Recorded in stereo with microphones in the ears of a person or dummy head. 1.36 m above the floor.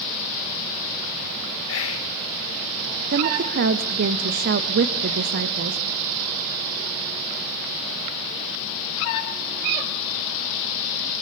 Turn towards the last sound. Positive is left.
turn(degrees=-60)  # may be behind; listen again after turning